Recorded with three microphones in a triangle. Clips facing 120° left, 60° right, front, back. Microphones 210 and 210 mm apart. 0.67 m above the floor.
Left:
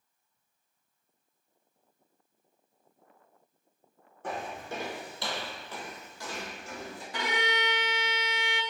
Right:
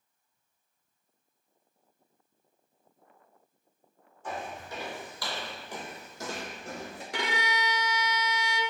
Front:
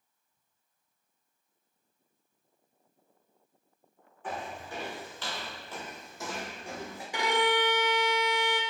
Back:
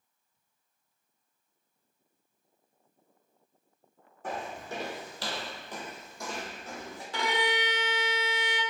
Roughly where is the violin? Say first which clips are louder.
Left 1 dB, front 3 dB; right.